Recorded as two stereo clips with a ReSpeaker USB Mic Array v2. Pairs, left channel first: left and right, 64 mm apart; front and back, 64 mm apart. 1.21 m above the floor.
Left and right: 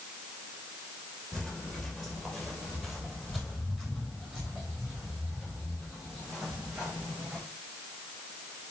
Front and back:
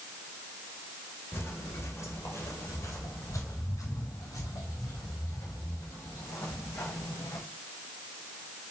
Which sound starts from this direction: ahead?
Footsteps, at 1.3 s.